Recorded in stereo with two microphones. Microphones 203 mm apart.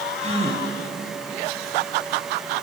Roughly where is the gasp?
Right.